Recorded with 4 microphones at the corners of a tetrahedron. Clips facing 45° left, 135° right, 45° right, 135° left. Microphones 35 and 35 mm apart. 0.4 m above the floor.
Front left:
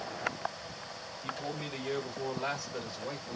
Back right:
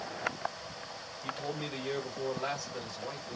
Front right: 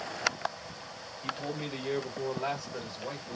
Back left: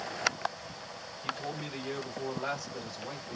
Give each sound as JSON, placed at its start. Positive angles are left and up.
{"t": 1.2, "sound": "a man speaking", "azimuth_deg": -70, "distance_m": 1.8}